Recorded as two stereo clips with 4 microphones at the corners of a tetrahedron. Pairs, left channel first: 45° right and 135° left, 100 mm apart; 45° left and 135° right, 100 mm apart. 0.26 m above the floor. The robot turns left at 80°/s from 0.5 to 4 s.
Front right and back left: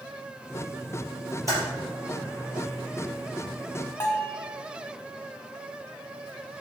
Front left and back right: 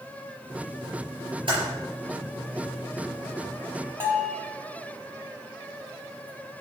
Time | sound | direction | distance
1.5 | typing on a keyboard | 170° right | 4 m
4.0 | a bell | 85° right | 1.5 m